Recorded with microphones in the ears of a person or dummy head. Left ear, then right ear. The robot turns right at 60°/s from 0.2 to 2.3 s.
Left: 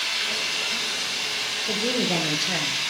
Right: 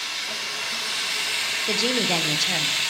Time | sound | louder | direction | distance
0.0 | running water | left 3 dB | 5° right (ahead or behind) | 0.7 m
1.7 | a woman speaking | right 2 dB | 55° right | 0.7 m